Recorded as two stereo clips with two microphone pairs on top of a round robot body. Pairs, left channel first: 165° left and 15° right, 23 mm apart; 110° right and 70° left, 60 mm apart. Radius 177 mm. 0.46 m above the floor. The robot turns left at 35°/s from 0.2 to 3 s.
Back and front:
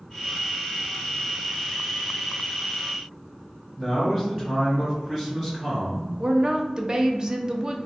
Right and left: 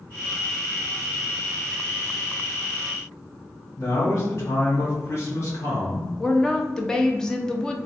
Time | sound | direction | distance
3.8 | a man speaking | 85° right | 1.3 m
6.2 | a woman speaking | 30° right | 0.7 m